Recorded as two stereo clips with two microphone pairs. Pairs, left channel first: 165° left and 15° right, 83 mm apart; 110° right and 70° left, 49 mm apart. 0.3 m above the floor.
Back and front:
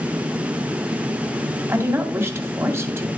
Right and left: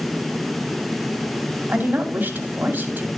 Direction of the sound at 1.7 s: 35° left.